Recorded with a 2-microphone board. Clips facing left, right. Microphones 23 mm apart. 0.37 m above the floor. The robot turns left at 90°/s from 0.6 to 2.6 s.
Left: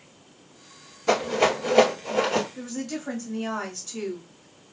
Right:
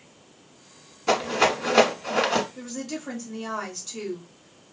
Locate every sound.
1.1 s a rattle: 10° right (ahead or behind), 1.2 m; by 2.5 s 50° right (ahead or behind), 1.2 m
2.5 s a woman speaking: centre (ahead or behind), 1.6 m